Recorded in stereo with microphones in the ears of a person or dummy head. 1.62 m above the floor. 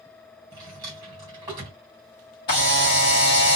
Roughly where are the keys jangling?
No keys jangling in this recording.